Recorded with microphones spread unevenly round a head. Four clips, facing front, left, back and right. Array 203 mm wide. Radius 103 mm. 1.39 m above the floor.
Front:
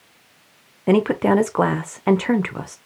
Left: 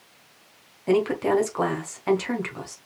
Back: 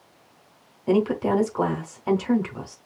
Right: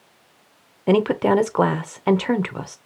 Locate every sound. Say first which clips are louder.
0.9 s a woman speaking: right 4 dB, front 4 dB; 35° right, 1.0 m